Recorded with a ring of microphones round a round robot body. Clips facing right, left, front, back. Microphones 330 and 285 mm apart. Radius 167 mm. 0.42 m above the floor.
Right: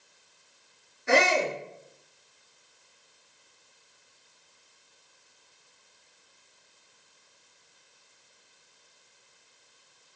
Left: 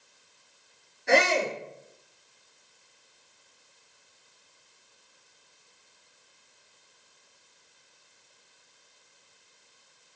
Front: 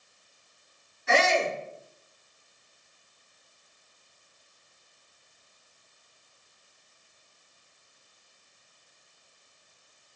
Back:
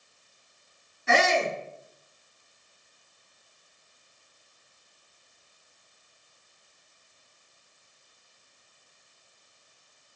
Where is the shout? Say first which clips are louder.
Even, even; 175° right, 6.5 m.